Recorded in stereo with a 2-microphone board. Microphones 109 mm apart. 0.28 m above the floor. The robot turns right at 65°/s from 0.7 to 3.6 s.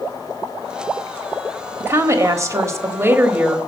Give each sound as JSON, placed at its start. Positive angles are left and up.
{"t": 1.8, "sound": "a woman speaking", "side_deg": -20, "distance_m": 1.1}